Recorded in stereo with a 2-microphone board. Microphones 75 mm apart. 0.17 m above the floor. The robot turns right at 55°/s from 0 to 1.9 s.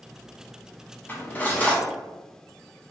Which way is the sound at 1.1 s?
25° left (ahead or behind).